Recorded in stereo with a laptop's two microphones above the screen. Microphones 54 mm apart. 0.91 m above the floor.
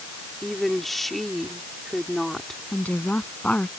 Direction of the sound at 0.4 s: Centre (ahead or behind).